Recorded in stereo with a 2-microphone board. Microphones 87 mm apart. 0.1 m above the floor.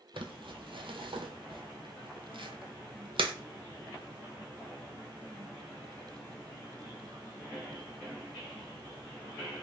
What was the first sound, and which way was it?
Crumpling, 70° right (ahead or behind).